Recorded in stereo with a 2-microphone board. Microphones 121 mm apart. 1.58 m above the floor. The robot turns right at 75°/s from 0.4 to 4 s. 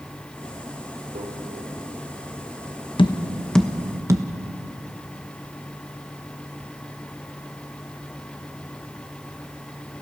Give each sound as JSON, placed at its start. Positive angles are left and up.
{"t": 1.1, "sound": "a microwave", "side_deg": -80, "distance_m": 4.5}
{"t": 3.0, "sound": "tapping", "side_deg": 45, "distance_m": 1.1}